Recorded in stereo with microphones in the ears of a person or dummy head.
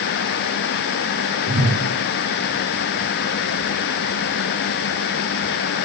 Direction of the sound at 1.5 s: 50° right (ahead or behind).